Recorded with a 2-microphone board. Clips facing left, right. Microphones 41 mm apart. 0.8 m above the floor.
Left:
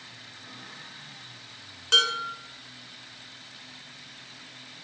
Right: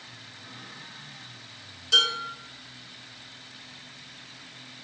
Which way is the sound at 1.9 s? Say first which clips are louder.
Even; 55° left (ahead or behind).